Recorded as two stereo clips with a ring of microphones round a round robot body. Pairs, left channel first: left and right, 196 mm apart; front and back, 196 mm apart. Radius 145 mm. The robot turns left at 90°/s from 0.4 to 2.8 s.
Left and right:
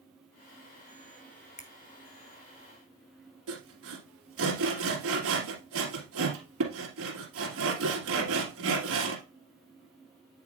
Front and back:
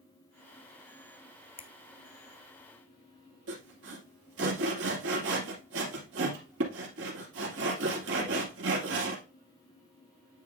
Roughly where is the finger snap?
Ahead left.